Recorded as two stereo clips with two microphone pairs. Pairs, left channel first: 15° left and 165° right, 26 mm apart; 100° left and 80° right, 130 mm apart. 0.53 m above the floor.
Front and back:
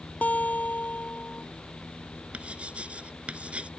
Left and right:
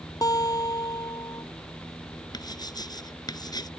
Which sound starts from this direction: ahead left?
A guitar, at 0.2 s.